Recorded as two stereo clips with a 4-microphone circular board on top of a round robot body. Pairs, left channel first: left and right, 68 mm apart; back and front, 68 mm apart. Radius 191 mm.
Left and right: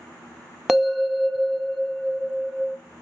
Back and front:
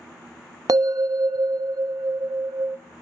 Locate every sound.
0.7 s a bell: 5° right, 0.8 m